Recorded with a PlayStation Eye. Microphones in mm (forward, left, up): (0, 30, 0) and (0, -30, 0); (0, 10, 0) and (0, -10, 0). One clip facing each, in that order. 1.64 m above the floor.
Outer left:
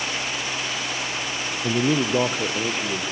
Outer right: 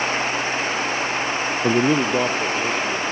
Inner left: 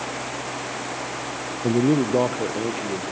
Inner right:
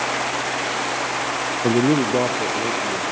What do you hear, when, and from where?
1.6 s a man speaking: 35° right (ahead or behind), 0.6 m; by 3.0 s 15° left (ahead or behind), 2 m